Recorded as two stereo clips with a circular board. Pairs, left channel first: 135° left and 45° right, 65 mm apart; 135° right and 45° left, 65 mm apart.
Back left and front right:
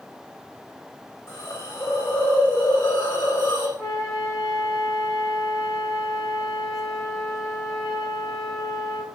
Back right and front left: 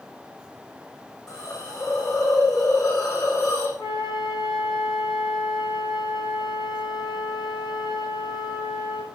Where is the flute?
115° right, 8.5 m.